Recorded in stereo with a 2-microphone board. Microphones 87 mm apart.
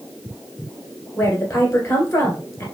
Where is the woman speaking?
25° left (ahead or behind), 1.5 m.